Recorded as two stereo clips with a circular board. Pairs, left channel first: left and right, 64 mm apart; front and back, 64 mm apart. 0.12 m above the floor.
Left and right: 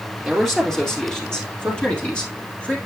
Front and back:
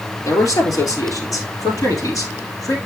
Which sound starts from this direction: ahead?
A man speaking, at 0.2 s.